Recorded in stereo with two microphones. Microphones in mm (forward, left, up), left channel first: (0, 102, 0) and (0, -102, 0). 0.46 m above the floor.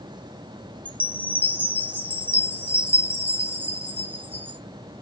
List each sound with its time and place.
0.8 s a chime: 10° right (ahead or behind), 0.6 m